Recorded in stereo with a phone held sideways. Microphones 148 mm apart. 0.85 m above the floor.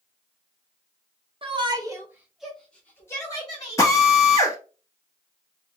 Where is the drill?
25° left (ahead or behind), 1.0 m.